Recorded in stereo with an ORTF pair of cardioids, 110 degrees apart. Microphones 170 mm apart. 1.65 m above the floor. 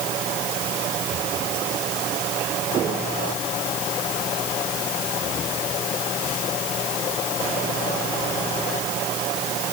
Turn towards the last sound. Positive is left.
No sound to turn to.